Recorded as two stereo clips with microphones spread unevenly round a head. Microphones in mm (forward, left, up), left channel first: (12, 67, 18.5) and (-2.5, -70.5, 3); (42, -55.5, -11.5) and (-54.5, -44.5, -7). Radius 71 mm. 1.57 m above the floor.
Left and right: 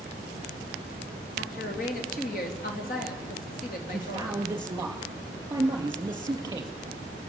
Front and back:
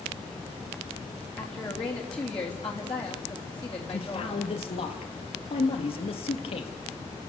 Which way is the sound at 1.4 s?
55° left.